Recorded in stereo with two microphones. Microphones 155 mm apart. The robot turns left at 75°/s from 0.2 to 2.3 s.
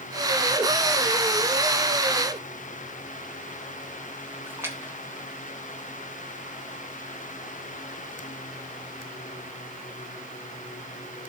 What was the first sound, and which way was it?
A splash, 15° right (ahead or behind).